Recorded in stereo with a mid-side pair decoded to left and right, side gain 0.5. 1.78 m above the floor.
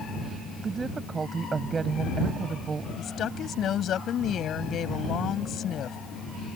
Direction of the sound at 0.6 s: 35° right.